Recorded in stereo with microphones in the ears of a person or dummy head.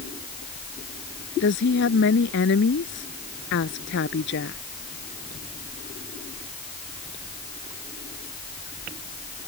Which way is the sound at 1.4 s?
60° left (ahead or behind).